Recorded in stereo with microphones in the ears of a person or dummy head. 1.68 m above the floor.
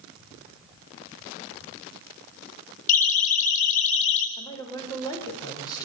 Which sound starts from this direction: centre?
A woman speaking, at 4.4 s.